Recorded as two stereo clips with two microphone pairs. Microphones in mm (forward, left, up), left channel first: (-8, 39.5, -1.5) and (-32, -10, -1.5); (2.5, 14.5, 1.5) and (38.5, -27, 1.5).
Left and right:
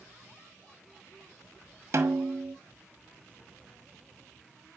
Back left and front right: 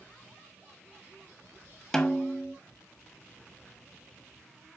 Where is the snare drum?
150° right, 1.1 m.